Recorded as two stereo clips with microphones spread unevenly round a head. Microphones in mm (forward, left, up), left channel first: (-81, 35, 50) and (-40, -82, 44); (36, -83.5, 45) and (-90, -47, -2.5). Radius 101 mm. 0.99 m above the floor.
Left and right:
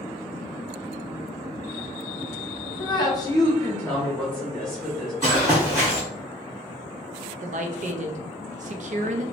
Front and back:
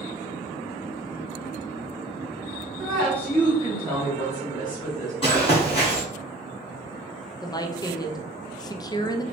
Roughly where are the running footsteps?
Ahead.